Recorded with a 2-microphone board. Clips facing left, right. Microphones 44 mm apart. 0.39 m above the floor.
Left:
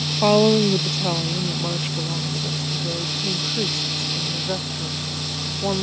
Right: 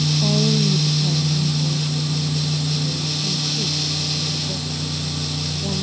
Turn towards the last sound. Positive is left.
turn(degrees=40)  # may be behind; listen again after turning